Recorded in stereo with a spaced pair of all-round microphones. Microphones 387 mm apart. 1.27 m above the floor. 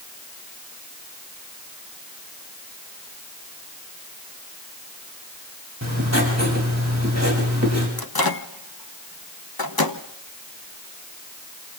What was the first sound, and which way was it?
Writing, 45° right (ahead or behind).